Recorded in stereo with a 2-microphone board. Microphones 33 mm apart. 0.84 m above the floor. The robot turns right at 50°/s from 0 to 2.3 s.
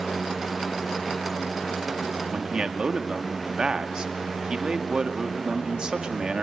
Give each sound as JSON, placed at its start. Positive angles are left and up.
{"t": 2.3, "sound": "a man speaking", "side_deg": -25, "distance_m": 1.8}